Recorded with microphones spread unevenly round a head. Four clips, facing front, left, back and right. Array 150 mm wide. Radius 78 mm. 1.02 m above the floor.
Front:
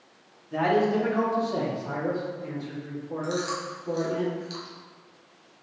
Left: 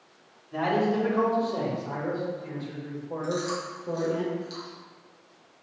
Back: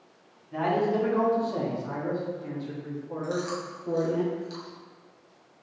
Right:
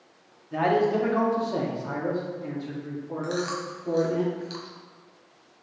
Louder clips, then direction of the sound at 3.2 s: Even, front 1 dB; 65° right.